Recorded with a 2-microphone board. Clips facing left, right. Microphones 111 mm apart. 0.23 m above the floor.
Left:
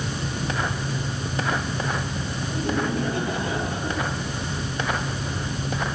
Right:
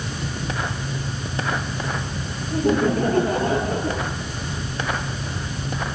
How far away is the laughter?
About 7 m.